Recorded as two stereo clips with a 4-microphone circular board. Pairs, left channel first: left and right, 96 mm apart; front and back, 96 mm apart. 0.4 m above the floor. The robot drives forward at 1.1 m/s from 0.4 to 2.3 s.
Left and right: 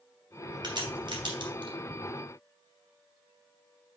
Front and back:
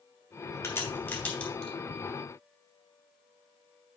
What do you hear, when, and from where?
0.6 s a crack: 55° right, 3 m; by 1.7 s 85° right, 2.5 m